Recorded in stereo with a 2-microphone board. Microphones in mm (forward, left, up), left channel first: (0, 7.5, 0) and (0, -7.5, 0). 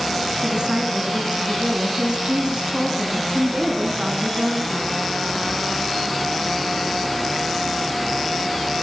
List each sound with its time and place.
0.4 s a woman speaking: 55° right (ahead or behind), 2.5 m